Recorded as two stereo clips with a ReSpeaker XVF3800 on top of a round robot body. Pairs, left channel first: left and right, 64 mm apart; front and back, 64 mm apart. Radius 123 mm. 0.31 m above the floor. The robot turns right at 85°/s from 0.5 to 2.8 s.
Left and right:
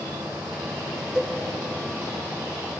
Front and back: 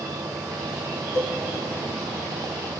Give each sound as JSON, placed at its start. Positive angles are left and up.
{"t": 1.1, "sound": "a cowbell", "azimuth_deg": -10, "distance_m": 3.0}